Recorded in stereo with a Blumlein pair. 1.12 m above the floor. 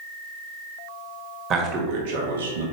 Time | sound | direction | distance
1.5 | a man speaking | 30° right | 1.9 m